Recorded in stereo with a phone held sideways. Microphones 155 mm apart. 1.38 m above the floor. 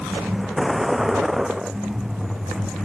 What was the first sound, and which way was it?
A vehicle, centre (ahead or behind).